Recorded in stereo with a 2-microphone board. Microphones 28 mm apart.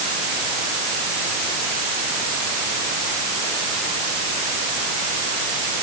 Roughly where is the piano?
I don't hear a piano.